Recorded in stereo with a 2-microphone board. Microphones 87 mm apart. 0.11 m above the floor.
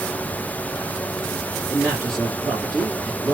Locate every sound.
1.7 s a man speaking: centre (ahead or behind), 2 m